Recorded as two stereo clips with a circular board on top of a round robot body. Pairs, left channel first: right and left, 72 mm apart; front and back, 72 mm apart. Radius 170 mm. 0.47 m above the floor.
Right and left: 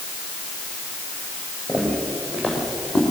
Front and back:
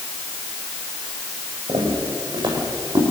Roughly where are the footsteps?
Behind.